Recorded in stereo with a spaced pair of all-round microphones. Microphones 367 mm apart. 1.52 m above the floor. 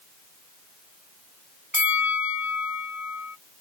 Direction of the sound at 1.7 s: 65° right (ahead or behind).